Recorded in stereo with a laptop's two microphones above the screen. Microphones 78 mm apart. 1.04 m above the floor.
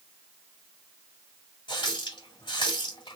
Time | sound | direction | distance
1.7 | a running tap | 80° left | 2.0 m